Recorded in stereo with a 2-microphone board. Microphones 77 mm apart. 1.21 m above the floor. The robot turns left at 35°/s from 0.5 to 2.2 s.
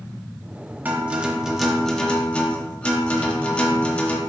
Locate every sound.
0.8 s a guitar: 155° right, 0.9 m; by 4.2 s 160° left, 0.9 m